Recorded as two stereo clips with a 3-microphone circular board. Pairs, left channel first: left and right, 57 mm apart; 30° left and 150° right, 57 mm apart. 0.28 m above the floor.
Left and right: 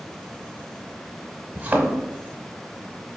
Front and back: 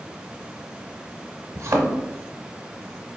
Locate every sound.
1.6 s a thud: 150° right, 0.7 m